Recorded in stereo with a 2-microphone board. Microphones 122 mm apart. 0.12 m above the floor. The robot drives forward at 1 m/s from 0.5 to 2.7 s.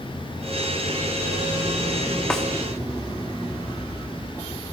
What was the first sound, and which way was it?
A snare drum, 5° left (ahead or behind).